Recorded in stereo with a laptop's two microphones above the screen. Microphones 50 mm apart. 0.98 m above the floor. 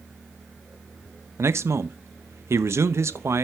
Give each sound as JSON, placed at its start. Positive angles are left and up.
{"t": 1.4, "sound": "a man speaking", "side_deg": -65, "distance_m": 0.7}